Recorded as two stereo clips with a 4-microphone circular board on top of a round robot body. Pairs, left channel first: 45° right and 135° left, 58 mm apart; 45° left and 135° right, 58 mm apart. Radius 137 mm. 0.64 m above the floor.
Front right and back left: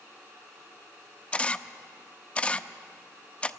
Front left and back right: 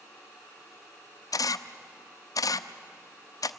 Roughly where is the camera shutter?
Ahead left.